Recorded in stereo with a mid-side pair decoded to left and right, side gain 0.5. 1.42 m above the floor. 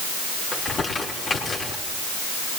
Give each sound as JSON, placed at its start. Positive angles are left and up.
{"t": 0.5, "sound": "crumpling", "azimuth_deg": 50, "distance_m": 5.0}